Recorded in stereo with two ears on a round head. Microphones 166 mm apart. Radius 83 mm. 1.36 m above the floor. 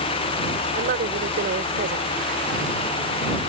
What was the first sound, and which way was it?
A woman speaking, 55° right (ahead or behind).